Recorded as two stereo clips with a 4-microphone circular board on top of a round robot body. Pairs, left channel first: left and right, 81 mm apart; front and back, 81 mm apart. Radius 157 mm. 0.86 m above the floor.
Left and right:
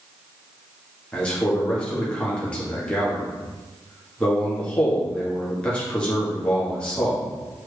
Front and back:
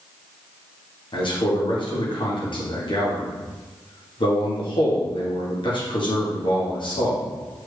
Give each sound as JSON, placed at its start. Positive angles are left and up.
{"t": 1.1, "sound": "a man speaking", "azimuth_deg": 10, "distance_m": 1.8}